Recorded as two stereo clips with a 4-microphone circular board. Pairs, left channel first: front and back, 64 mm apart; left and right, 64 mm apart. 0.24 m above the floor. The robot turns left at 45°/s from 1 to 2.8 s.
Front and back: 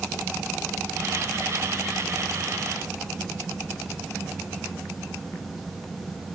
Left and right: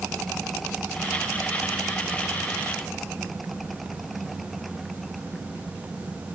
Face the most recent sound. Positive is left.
No sound to turn to.